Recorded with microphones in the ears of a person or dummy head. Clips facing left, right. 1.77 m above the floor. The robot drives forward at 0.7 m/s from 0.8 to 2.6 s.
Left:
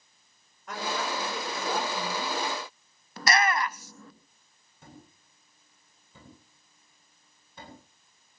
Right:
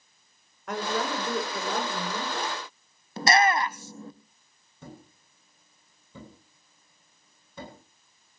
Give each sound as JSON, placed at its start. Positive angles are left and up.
{"t": 0.7, "sound": "a woman speaking", "side_deg": -60, "distance_m": 6.0}
{"t": 3.2, "sound": "a shout", "side_deg": -25, "distance_m": 1.1}
{"t": 4.8, "sound": "a thud", "side_deg": -80, "distance_m": 9.5}